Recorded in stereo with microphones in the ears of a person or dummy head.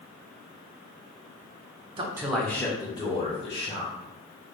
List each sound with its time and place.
2.0 s a man speaking: 30° right (ahead or behind), 0.7 m; by 4.0 s 35° left (ahead or behind), 2.5 m